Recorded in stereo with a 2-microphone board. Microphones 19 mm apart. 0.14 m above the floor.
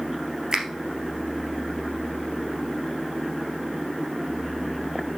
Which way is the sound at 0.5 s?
35° right (ahead or behind).